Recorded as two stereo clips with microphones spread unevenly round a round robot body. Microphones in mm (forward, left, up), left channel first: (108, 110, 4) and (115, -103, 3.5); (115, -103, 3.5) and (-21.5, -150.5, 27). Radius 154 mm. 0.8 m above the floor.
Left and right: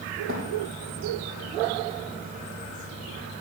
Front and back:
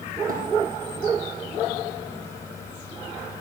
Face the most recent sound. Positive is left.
turn(degrees=-140)